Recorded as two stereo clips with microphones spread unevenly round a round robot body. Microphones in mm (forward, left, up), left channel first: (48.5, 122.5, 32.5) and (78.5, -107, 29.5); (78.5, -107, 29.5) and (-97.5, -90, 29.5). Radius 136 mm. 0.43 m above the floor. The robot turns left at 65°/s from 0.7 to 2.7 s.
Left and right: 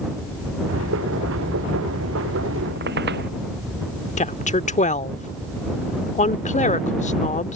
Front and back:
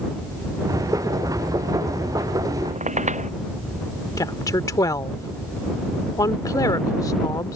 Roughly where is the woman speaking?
Ahead left.